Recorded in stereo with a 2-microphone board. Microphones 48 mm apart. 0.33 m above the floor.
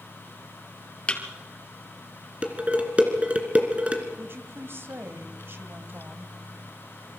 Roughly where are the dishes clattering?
Right.